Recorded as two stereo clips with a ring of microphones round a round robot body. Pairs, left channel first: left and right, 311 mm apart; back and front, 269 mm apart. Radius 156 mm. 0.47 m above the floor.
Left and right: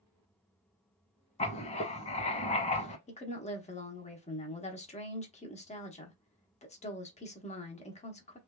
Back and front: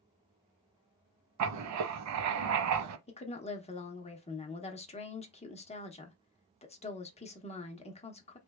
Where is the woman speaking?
135° left, 0.9 m.